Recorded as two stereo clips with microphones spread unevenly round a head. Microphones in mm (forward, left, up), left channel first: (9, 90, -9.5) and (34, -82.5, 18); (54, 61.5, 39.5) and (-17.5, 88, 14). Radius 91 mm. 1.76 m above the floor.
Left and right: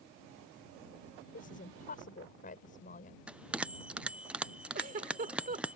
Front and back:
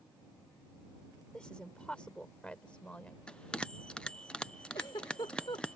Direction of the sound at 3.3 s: 25° right.